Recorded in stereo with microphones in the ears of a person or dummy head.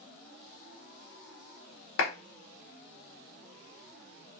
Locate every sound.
2.0 s a clap: 70° left (ahead or behind), 0.7 m